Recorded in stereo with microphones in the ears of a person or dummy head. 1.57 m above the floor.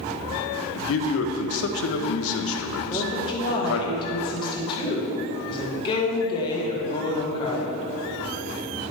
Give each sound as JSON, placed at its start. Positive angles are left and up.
{"t": 0.8, "sound": "a man speaking", "side_deg": 70, "distance_m": 0.8}
{"t": 2.9, "sound": "a woman speaking", "side_deg": 25, "distance_m": 1.9}